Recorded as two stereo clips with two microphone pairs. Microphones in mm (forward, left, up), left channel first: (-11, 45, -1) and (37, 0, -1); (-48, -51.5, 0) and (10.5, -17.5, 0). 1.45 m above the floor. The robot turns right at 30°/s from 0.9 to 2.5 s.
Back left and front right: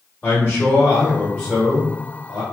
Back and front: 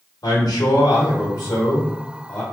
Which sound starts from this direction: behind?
A man speaking, at 0.2 s.